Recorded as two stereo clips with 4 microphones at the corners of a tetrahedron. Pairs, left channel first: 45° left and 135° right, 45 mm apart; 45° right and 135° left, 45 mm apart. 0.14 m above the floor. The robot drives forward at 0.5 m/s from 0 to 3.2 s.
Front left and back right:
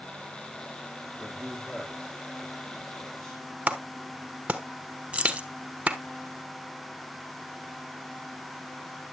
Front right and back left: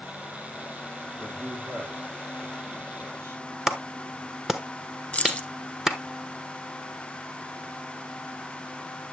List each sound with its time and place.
1.2 s a man speaking: 120° left, 6.5 m; by 3.4 s 125° left, 7 m
3.7 s a clap: 150° right, 1.2 m
5.1 s keys jangling: 95° right, 1.0 m